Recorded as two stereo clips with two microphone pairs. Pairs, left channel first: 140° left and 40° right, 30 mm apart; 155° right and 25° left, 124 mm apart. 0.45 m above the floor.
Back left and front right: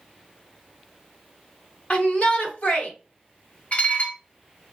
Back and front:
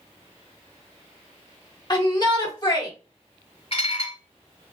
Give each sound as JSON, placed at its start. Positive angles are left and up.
{"t": 1.9, "sound": "a shout", "azimuth_deg": 165, "distance_m": 1.3}
{"t": 3.7, "sound": "dishes clattering", "azimuth_deg": 175, "distance_m": 1.6}